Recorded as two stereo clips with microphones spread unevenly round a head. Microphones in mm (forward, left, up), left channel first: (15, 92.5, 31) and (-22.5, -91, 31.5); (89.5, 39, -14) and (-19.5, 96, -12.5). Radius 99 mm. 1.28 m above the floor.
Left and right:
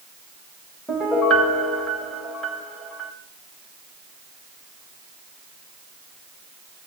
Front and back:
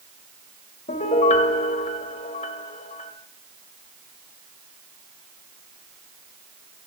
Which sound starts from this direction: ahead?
A piano, at 0.9 s.